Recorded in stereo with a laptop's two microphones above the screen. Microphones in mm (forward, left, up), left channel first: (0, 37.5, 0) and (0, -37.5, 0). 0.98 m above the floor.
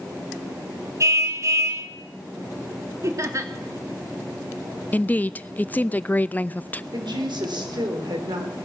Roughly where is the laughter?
Right.